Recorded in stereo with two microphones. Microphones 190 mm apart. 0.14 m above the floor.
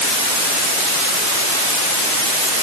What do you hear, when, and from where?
Only background noise.